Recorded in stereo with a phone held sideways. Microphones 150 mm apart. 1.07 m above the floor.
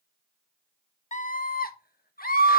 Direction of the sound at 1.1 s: 55° left (ahead or behind).